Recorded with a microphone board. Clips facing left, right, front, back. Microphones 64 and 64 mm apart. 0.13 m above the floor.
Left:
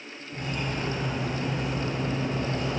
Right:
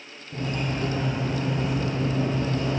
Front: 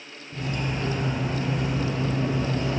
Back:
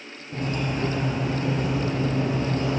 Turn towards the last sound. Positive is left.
turn(degrees=-145)